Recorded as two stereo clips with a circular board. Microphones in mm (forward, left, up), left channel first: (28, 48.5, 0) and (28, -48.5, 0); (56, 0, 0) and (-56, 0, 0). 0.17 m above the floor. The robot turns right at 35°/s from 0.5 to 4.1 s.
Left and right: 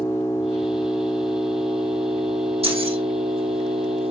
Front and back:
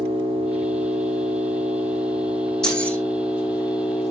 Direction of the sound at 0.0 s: 160° left.